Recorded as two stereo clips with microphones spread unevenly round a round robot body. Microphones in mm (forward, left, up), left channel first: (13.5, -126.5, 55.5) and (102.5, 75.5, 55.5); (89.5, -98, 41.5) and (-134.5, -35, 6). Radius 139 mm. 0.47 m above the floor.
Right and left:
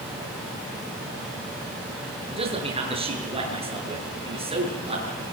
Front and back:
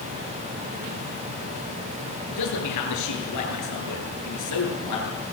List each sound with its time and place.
2.3 s a man speaking: straight ahead, 9 m